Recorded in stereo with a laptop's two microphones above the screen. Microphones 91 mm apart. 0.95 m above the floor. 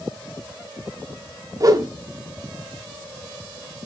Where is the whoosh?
40° right (ahead or behind), 0.6 m.